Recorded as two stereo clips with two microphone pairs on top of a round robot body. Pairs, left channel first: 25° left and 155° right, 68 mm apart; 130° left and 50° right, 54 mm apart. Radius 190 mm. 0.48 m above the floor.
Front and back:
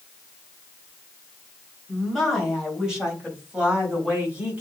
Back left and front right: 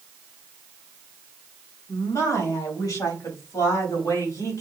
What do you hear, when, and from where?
1.9 s a woman speaking: 115° left, 4 m; by 4.6 s 135° left, 4.5 m